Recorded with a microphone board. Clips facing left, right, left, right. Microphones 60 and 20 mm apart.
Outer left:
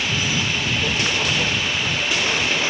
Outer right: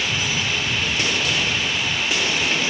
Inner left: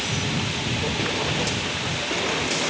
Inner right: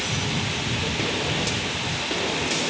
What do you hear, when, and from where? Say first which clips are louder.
0.0 s a lawn mower: outer left 1 dB, even; 30° left (ahead or behind)